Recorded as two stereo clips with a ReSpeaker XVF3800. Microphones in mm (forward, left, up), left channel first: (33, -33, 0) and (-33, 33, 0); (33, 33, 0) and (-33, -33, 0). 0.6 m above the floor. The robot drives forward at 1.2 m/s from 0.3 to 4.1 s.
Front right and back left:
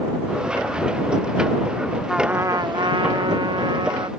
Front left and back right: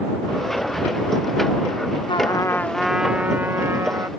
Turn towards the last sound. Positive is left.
turn(degrees=165)